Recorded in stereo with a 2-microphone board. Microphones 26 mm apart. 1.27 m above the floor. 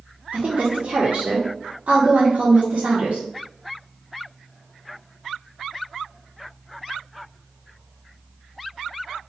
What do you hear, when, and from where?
0.3 s a woman speaking: 65° right (ahead or behind), 1.2 m